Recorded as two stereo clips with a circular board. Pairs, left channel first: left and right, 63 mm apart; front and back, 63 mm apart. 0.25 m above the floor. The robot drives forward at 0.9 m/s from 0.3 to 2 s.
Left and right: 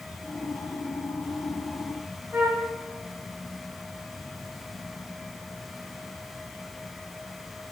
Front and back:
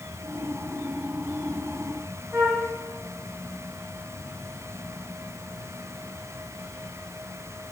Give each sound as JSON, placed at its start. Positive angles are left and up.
{"t": 2.3, "sound": "a flute", "azimuth_deg": -145, "distance_m": 3.5}